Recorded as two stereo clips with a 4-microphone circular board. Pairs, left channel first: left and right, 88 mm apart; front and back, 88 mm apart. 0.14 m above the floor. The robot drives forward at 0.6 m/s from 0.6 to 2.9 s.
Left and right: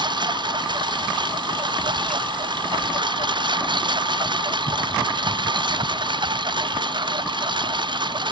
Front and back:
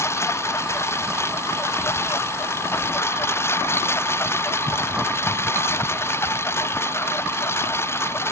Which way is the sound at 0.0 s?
60° right.